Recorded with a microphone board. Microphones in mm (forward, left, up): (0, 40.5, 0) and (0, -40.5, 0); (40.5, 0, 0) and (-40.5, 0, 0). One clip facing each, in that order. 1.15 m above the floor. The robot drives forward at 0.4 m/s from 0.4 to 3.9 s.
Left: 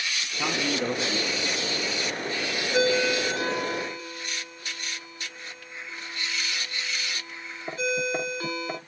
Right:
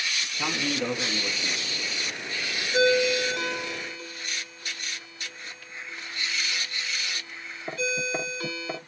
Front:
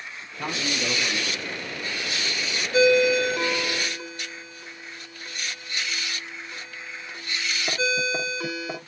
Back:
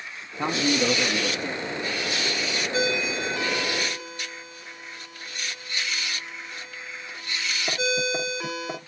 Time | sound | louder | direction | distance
0.4 | a man speaking | left 2 dB, back 6 dB | 155° left | 0.6 m
2.7 | a ringtone | right 2 dB, front 10 dB | 140° left | 2.5 m